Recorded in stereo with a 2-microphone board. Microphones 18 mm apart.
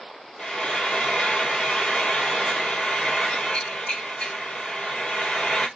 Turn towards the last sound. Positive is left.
turn(degrees=85)